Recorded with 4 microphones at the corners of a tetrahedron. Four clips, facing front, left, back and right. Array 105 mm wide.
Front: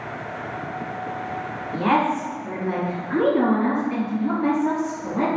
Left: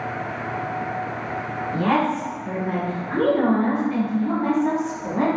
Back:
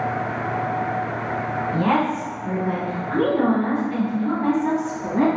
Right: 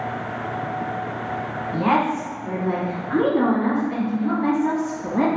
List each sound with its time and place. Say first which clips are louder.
1.7 s a woman speaking: right 1 dB, front 1 dB; 105° right, 1.3 m; by 5.3 s 115° right, 2.5 m